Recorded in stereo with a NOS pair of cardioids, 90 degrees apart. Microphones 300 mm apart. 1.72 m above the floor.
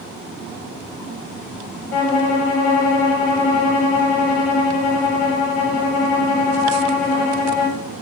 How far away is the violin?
About 2 m.